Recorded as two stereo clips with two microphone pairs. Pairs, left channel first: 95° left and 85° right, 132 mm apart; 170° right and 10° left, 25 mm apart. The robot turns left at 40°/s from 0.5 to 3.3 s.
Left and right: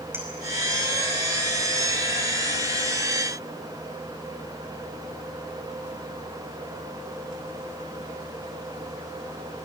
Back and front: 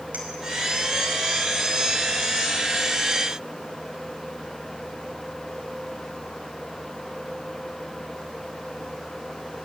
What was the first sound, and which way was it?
A clink, 10° right.